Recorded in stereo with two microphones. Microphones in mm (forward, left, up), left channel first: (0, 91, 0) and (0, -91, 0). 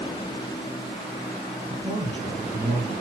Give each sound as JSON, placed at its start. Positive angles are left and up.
{"t": 1.7, "sound": "a man speaking", "side_deg": -30, "distance_m": 3.0}